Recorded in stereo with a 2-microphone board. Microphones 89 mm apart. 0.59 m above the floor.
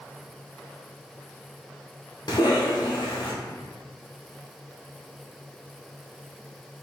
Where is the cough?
55° left (ahead or behind), 1.1 m.